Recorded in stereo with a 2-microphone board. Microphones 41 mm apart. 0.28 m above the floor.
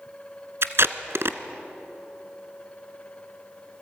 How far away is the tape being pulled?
About 1.0 m.